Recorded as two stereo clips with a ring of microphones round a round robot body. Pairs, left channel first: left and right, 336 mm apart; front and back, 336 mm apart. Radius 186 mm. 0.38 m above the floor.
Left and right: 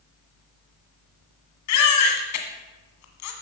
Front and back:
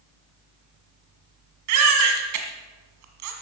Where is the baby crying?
135° left, 1.7 m.